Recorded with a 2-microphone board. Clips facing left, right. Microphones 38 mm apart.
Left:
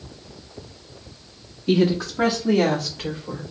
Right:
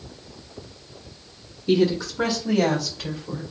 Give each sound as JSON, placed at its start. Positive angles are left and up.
{"t": 1.7, "sound": "a woman speaking", "side_deg": 45, "distance_m": 1.7}